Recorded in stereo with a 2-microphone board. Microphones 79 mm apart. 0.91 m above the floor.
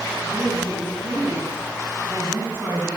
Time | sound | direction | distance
0.2 | a woman speaking | 30° right (ahead or behind) | 6.5 m